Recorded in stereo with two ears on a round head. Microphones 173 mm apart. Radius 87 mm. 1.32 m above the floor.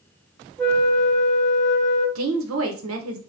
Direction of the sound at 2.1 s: 80° right.